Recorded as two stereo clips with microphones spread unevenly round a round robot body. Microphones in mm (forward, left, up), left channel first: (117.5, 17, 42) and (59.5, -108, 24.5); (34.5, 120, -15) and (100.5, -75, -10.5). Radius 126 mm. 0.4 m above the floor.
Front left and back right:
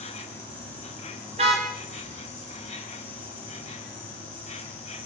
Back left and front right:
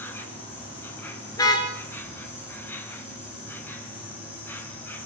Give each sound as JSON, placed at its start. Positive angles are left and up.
{"t": 0.0, "sound": "an insect", "azimuth_deg": 30, "distance_m": 6.0}
{"t": 1.3, "sound": "a car horn", "azimuth_deg": -175, "distance_m": 2.5}